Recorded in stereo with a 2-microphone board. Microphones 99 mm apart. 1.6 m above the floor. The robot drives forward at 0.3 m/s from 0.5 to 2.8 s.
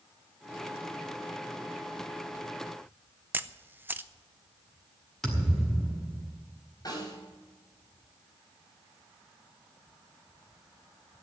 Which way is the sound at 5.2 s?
Centre (ahead or behind).